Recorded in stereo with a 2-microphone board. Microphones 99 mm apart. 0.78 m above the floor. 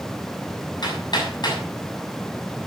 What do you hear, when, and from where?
0.8 s hammering: 50° left (ahead or behind), 6 m